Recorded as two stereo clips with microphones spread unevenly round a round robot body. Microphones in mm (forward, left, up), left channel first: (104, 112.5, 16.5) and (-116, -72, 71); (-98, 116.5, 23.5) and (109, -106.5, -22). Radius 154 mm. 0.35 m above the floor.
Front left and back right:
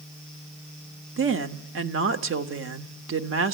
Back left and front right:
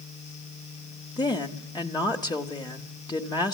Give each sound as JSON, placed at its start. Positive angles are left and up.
{"t": 1.2, "sound": "a woman speaking", "azimuth_deg": -145, "distance_m": 0.9}